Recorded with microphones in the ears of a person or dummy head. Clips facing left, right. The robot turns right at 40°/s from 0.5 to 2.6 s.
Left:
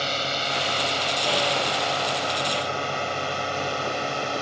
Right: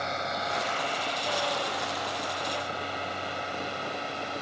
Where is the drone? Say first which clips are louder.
Left 3 dB; 40° left (ahead or behind); by 4.4 s 65° left (ahead or behind).